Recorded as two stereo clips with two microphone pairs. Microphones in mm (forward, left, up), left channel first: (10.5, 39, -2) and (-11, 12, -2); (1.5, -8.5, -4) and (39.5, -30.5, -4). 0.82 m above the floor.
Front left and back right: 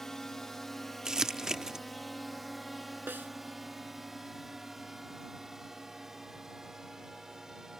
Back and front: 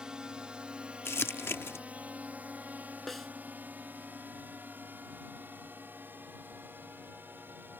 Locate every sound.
0.0 s a drone: 5° right; by 7.8 s 55° right
1.1 s crumpling: 160° left
3.1 s a snare drum: 125° right